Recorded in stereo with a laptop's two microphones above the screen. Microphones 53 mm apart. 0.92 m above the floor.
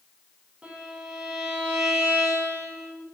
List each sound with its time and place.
0.6 s a violin: 20° right (ahead or behind), 4 m